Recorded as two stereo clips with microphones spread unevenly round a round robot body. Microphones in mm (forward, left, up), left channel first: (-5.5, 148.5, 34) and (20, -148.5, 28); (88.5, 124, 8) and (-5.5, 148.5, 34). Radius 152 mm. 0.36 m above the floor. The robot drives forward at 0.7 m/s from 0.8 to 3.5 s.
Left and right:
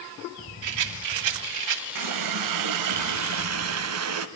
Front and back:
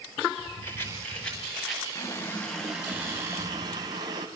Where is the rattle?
80° right, 2.5 m; by 1.9 s 100° right, 2.5 m.